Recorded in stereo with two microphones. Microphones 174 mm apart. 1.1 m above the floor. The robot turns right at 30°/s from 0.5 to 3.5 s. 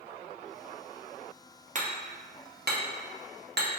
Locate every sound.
1.8 s hammering: 45° right (ahead or behind), 0.7 m; by 3.7 s 75° right (ahead or behind), 0.7 m